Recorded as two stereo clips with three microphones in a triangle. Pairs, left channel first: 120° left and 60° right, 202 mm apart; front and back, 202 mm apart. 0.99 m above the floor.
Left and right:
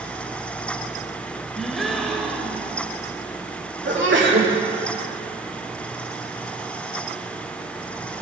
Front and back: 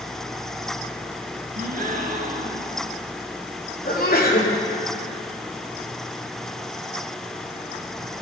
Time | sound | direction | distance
1.6 | a gasp | 150° right | 1.0 m
3.9 | a sneeze | 45° right | 1.9 m